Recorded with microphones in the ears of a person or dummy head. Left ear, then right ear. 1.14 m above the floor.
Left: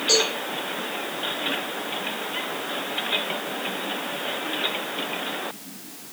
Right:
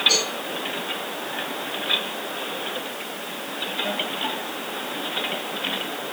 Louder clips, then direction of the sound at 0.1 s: Left 2 dB; 15° left (ahead or behind).